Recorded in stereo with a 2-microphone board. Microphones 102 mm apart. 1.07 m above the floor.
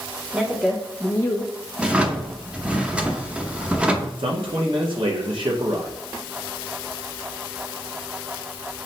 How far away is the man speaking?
About 0.9 m.